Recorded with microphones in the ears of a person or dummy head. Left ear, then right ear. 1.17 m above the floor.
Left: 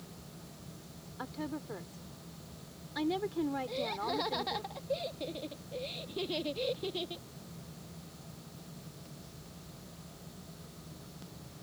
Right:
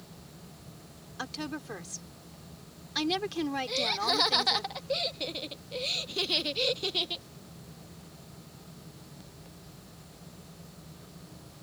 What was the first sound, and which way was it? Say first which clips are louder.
A woman speaking: right 4 dB; 80° right.